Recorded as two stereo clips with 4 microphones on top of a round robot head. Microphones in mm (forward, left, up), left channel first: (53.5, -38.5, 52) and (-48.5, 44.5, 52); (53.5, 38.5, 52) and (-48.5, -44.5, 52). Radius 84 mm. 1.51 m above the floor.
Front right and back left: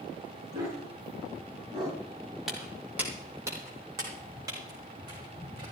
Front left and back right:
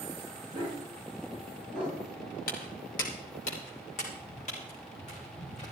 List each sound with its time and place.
0.5 s a dog barking: 80° left, 7 m
2.5 s footsteps: 55° left, 2.5 m; by 5.7 s 80° left, 6 m